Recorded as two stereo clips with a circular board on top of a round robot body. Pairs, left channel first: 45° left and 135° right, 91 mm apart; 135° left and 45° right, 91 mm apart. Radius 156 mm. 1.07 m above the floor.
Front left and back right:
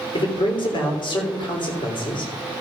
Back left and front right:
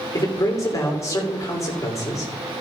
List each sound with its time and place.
0.1 s a man speaking: 75° left, 3 m